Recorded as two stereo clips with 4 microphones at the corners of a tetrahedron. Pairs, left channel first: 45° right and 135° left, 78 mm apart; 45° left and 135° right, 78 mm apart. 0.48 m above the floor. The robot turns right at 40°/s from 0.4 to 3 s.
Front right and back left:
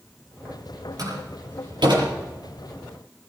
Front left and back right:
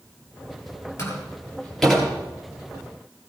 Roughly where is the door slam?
Left.